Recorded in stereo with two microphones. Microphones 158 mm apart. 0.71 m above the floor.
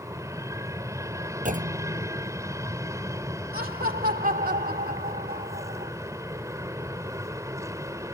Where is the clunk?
55° right (ahead or behind).